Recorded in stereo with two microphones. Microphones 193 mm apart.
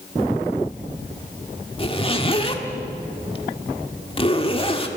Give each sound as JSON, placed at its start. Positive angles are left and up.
{"t": 1.8, "sound": "a zipper", "side_deg": 30, "distance_m": 1.6}